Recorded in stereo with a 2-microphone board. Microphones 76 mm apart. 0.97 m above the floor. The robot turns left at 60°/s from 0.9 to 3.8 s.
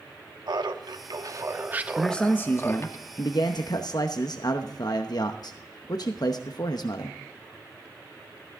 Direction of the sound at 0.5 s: 105° right.